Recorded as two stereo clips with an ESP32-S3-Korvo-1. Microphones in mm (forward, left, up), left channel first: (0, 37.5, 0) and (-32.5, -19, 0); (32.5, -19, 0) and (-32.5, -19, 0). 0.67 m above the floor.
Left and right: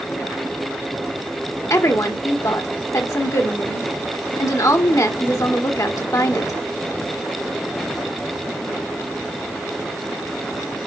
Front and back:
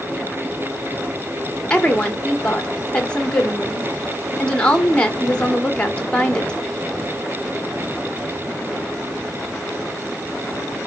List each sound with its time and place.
1.7 s a woman speaking: 70° left, 1.7 m